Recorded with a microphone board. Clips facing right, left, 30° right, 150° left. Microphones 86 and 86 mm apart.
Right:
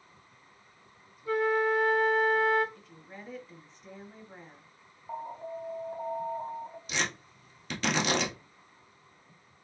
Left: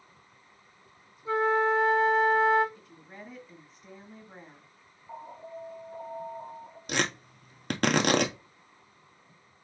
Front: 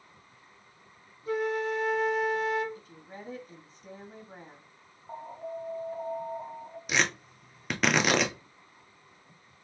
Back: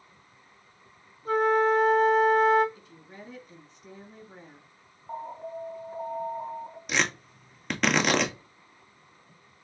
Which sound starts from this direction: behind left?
A flute, at 1.2 s.